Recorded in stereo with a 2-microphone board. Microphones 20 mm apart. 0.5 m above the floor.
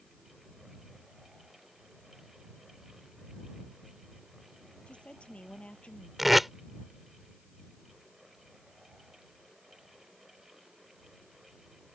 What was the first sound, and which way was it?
A woman speaking, 85° left.